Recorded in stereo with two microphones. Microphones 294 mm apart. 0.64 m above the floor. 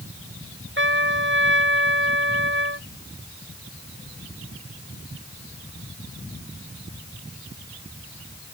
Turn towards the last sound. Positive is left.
turn(degrees=-40)  # may be behind; listen again after turning